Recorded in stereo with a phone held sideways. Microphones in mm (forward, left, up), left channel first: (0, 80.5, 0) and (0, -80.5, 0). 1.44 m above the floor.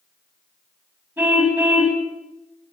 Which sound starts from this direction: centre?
A car horn, at 1.2 s.